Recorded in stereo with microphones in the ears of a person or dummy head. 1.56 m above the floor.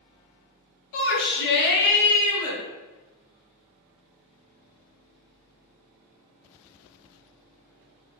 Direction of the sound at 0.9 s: 70° left (ahead or behind).